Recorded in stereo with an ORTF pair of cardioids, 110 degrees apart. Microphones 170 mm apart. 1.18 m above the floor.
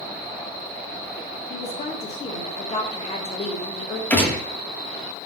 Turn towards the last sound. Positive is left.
turn(degrees=10)